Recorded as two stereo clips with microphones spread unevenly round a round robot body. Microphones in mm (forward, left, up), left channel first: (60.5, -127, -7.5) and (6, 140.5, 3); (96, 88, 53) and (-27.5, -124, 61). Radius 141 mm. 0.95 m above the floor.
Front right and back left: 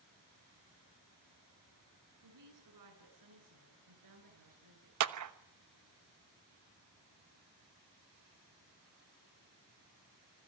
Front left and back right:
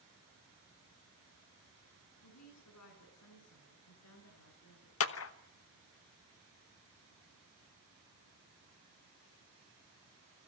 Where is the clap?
80° left, 1.1 m.